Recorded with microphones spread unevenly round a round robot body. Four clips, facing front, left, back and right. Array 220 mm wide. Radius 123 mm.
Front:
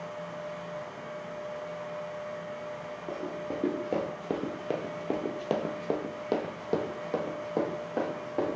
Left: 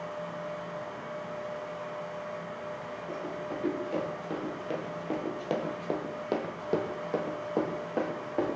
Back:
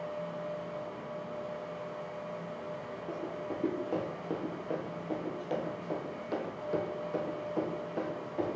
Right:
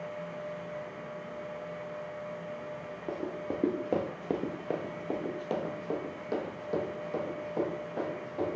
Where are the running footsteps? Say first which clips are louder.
Right 2 dB, front 3 dB; 90° right, 1.1 m; by 8.6 s 45° left, 2 m.